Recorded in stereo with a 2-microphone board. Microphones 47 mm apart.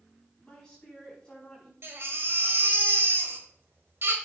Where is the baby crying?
55° right (ahead or behind), 1.6 m.